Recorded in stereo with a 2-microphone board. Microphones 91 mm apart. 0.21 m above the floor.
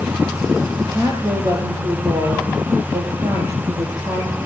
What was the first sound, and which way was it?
A woman speaking, 35° right (ahead or behind).